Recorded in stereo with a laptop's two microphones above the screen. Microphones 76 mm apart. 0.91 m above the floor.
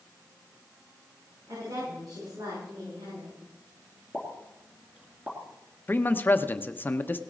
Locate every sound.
1.5 s a woman speaking: 65° right (ahead or behind), 9.5 m; by 3.3 s 80° right, 10 m
4.1 s a pop: 20° right (ahead or behind), 2.5 m
5.9 s a man speaking: 25° left (ahead or behind), 0.8 m